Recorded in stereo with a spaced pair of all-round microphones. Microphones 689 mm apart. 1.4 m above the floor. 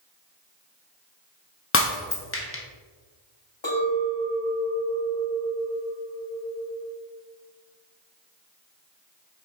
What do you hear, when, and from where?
1.7 s breaking glass: 20° left (ahead or behind), 0.8 m
3.6 s a clink: 40° left (ahead or behind), 1.1 m